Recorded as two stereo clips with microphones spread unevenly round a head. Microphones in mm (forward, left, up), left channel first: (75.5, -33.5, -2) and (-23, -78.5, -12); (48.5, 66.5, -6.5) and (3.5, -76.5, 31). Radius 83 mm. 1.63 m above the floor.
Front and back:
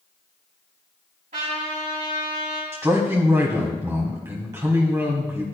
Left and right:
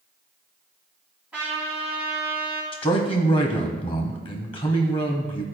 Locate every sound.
1.3 s a trumpet: 170° left, 2.5 m
2.7 s a man speaking: 130° left, 1.0 m